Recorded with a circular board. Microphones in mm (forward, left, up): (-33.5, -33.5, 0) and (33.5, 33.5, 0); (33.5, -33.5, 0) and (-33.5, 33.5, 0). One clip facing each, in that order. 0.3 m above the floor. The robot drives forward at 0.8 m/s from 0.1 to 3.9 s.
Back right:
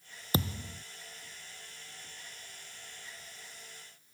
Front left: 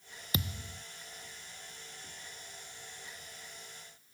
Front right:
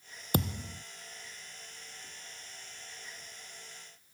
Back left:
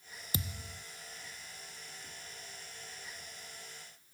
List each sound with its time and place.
0.3 s a thud: 80° right; by 0.8 s 85° right